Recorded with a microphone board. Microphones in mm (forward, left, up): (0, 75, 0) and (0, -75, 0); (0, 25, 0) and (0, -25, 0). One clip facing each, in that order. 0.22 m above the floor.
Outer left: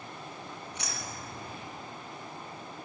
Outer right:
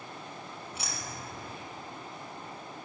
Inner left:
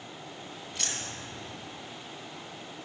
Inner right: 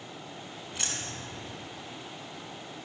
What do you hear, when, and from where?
0.7 s keys jangling: 10° right (ahead or behind), 1.2 m